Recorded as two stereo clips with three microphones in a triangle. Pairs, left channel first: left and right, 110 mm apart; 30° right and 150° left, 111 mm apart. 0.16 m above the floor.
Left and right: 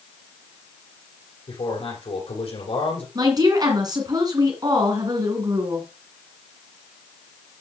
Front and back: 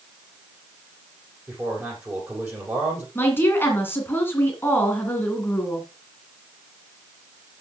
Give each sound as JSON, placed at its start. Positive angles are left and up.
{"t": 1.5, "sound": "a man speaking", "azimuth_deg": 80, "distance_m": 6.0}
{"t": 3.1, "sound": "a woman speaking", "azimuth_deg": -85, "distance_m": 2.0}